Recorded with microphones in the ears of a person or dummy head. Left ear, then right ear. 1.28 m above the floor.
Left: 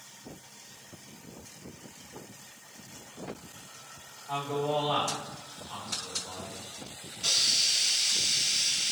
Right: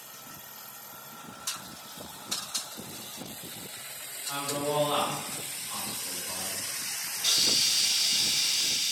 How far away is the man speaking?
About 1.1 m.